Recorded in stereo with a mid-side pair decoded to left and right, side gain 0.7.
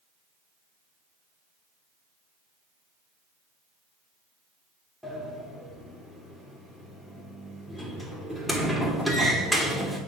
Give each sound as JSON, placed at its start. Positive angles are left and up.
{"t": 5.0, "sound": "a sliding door", "azimuth_deg": 0, "distance_m": 2.5}